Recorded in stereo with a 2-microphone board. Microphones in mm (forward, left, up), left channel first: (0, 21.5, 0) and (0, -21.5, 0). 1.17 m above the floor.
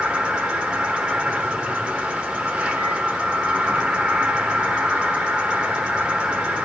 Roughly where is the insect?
Right.